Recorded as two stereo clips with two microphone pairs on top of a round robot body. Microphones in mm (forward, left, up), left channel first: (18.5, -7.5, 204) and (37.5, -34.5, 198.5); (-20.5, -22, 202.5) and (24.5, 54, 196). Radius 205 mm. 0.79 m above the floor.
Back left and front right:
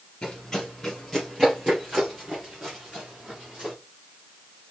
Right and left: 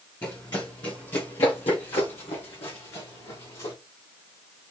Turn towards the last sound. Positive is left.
turn(degrees=-105)